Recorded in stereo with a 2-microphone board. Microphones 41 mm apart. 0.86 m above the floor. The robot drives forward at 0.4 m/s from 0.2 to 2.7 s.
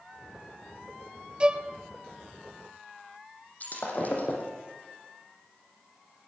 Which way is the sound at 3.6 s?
40° left (ahead or behind).